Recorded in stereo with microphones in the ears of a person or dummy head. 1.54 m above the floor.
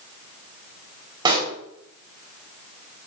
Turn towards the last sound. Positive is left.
turn(degrees=-20)  # may be behind; listen again after turning